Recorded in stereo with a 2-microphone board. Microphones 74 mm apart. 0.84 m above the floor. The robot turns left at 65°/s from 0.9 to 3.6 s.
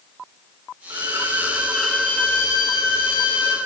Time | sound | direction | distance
0.9 | a violin | 125° right | 1.8 m